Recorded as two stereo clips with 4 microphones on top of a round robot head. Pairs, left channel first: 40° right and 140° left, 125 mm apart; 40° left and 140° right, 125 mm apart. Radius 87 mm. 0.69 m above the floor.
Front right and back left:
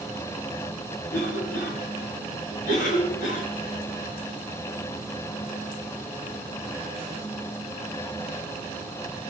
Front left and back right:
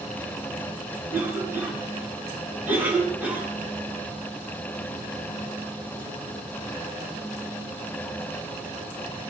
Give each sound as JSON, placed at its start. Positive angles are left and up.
{"t": 1.1, "sound": "a cough", "azimuth_deg": -60, "distance_m": 6.0}